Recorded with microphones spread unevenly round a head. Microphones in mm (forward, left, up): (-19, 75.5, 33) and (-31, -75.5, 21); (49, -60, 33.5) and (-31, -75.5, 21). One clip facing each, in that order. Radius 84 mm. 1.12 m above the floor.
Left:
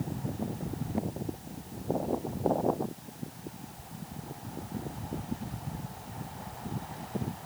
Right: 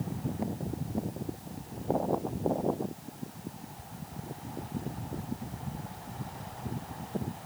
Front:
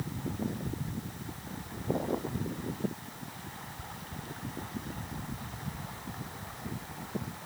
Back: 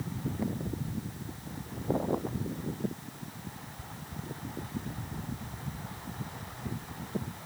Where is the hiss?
I don't hear a hiss.